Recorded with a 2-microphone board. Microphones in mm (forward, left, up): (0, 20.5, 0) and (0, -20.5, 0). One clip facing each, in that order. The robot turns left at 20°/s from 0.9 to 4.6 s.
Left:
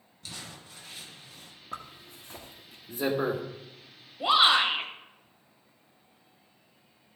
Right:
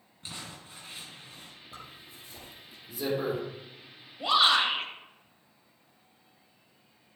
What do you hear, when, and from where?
0.2 s crumpling: 30° right (ahead or behind), 2.5 m; by 1.5 s 40° right (ahead or behind), 2.5 m
1.7 s a zipper: 65° left (ahead or behind), 1.4 m; by 3.4 s 35° left (ahead or behind), 1.4 m
4.2 s a shout: 20° left (ahead or behind), 1.5 m; by 4.9 s 25° left (ahead or behind), 1.5 m